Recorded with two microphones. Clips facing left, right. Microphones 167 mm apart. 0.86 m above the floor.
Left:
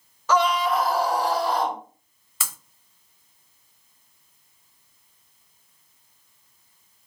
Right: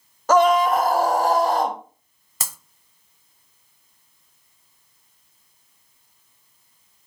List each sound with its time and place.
0.3 s a scream: 45° right (ahead or behind), 0.9 m
2.4 s breaking glass: 40° right (ahead or behind), 0.9 m